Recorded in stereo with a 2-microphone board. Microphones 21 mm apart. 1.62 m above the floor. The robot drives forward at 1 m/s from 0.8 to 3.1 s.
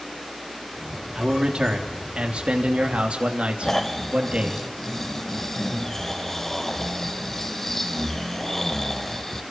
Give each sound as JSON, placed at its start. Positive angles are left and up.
{"t": 1.1, "sound": "a man speaking", "side_deg": -50, "distance_m": 3.5}
{"t": 3.6, "sound": "snoring", "side_deg": 15, "distance_m": 1.4}